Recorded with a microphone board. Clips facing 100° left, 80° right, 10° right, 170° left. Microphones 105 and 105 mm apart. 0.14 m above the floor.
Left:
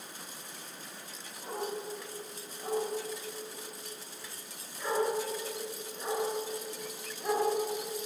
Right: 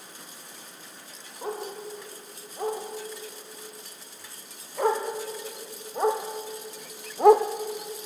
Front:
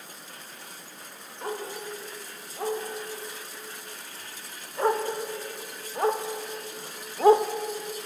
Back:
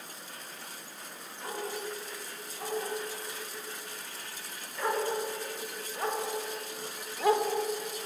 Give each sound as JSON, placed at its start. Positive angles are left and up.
{"t": 1.4, "sound": "a dog barking", "azimuth_deg": -65, "distance_m": 7.0}